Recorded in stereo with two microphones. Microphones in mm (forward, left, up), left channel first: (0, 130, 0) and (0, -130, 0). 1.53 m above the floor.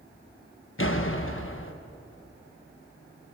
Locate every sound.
0.8 s a door slam: 55° left (ahead or behind), 1.2 m